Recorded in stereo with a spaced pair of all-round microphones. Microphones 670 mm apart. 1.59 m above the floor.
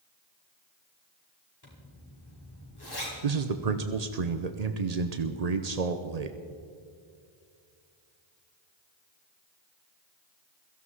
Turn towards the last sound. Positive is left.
turn(degrees=-70)  # may be behind; listen again after turning